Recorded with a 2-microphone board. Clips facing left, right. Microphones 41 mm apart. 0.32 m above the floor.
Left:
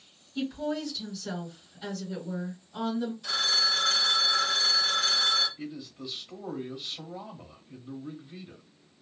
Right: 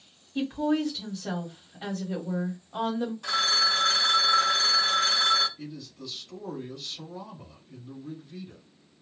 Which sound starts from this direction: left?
A man speaking, at 5.6 s.